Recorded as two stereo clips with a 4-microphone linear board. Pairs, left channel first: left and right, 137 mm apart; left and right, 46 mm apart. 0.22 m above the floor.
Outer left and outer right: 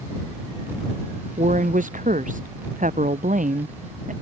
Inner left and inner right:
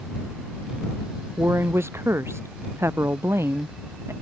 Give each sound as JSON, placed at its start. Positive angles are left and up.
{"t": 1.4, "sound": "a woman speaking", "side_deg": -70}